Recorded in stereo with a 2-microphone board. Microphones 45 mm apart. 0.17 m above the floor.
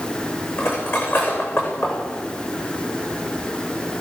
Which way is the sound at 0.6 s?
55° left (ahead or behind).